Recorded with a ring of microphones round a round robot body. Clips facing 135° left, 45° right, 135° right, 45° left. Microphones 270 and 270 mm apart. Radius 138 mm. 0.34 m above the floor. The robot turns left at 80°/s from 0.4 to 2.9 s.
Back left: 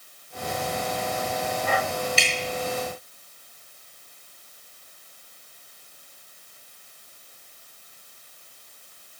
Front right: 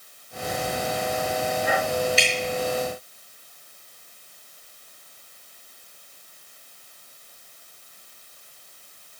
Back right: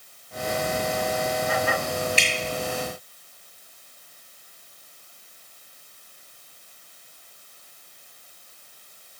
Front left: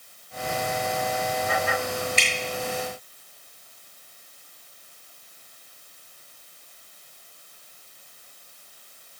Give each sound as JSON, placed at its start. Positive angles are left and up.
{"t": 2.2, "sound": "dripping", "azimuth_deg": 145, "distance_m": 5.5}